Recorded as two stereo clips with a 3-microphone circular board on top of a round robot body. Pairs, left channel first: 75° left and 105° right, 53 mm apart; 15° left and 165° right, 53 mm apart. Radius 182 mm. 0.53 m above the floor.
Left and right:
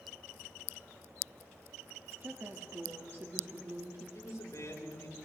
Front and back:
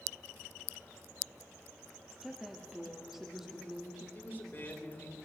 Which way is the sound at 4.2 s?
65° left.